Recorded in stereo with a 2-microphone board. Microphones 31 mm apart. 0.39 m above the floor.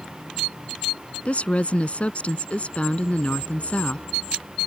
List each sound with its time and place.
1.2 s a woman speaking: 45° left (ahead or behind)